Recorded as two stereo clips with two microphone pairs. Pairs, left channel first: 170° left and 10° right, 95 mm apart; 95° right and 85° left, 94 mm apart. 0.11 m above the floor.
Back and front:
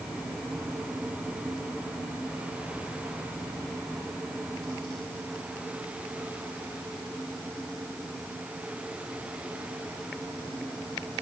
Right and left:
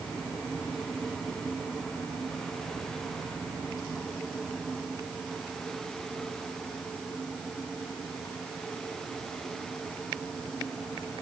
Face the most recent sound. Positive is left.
No sound to turn to.